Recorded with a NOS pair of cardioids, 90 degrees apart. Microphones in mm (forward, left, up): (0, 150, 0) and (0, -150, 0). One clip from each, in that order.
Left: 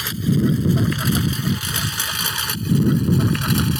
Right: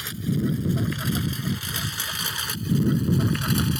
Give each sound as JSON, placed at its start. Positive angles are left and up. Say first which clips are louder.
{"t": 0.0, "sound": "a lawn mower", "louder": "left 7 dB", "azimuth_deg": 50}